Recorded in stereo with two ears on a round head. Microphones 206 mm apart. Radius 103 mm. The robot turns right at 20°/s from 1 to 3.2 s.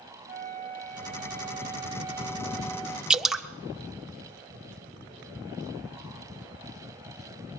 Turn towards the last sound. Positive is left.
turn(degrees=0)  # may be behind; listen again after turning